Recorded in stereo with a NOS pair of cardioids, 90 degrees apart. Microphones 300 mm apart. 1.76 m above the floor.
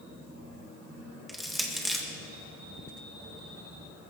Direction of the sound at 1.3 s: Straight ahead.